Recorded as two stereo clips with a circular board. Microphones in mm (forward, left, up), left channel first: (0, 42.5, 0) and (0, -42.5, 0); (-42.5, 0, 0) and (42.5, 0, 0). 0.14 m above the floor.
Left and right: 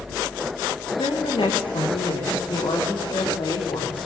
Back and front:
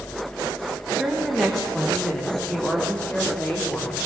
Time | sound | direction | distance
1.0 | a woman speaking | 90° left | 7.5 m